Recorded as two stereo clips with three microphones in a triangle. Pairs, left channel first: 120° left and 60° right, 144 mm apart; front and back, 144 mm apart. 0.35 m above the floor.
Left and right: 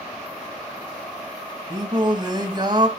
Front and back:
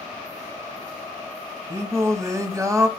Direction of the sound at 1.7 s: 115° right.